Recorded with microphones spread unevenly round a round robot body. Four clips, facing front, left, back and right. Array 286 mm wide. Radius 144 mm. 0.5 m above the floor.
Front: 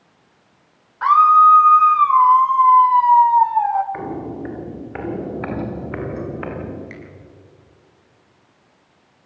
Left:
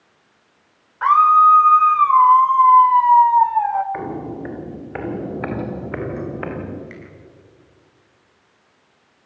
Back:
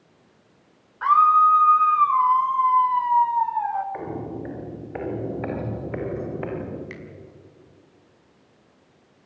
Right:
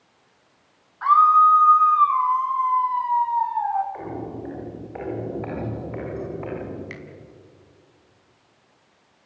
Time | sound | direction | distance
1.0 | a scream | 105° left | 1.5 m
3.9 | footsteps | 70° left | 6.5 m
6.9 | a finger snap | 85° right | 4 m